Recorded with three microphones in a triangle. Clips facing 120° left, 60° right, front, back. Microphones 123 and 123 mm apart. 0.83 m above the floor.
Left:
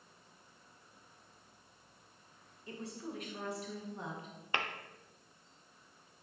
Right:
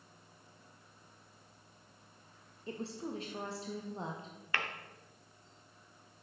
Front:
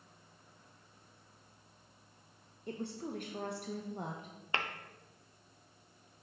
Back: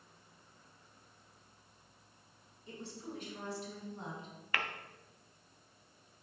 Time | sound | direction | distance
2.7 | a woman speaking | 5° right | 0.5 m
4.5 | tapping | 60° left | 0.5 m